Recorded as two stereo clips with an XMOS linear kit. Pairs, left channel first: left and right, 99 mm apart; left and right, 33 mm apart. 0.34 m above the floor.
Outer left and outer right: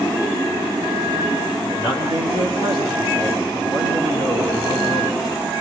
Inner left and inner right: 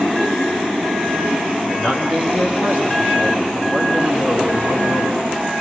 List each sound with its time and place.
1.6 s a man speaking: 55° left (ahead or behind), 3.5 m